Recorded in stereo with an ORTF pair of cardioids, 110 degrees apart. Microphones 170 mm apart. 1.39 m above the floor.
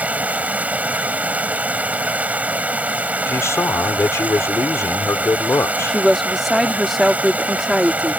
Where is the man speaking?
15° left.